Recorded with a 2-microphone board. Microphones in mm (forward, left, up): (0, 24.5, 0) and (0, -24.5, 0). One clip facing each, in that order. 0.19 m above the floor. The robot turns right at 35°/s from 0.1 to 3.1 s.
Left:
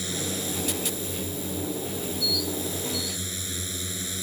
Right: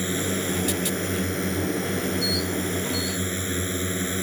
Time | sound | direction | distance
0.0 | a drone | 145° right | ?